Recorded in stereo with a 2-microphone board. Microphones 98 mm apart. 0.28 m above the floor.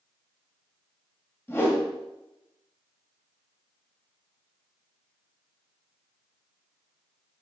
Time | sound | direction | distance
1.5 | a whoosh | 20° left (ahead or behind) | 1.5 m